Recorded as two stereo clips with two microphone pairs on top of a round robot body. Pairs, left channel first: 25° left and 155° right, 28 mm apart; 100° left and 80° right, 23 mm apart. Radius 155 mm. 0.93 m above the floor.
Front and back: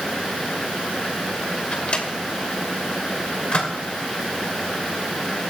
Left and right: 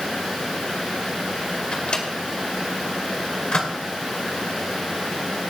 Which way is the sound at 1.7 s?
60° left.